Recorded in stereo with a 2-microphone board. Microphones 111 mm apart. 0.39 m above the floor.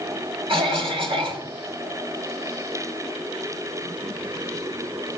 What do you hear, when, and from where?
0.5 s a cough: 55° right (ahead or behind), 2.5 m